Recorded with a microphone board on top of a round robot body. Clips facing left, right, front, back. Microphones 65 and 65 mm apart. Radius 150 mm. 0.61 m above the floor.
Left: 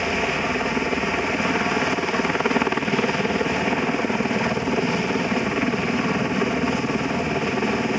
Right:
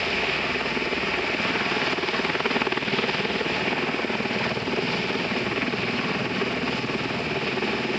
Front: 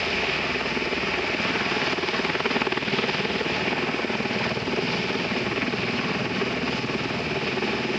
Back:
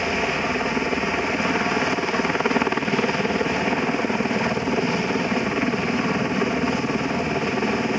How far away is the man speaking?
No man speaking in this recording.